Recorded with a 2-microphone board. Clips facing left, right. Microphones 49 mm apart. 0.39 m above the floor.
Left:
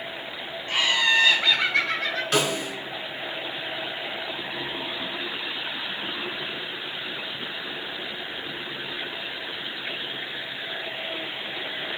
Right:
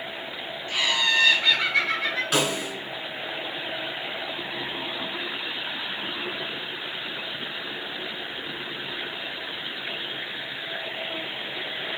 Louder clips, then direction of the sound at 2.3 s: Left 3 dB; centre (ahead or behind).